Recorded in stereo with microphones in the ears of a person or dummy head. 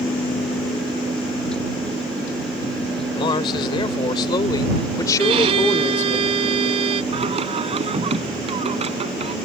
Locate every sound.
3.1 s a man speaking: 30° left (ahead or behind); by 6.2 s 15° left (ahead or behind)
5.2 s a violin: 35° right (ahead or behind)
7.1 s singing: 35° right (ahead or behind)